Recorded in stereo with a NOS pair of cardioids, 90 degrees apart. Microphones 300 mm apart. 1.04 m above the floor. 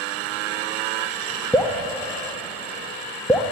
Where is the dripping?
5° left, 1.1 m.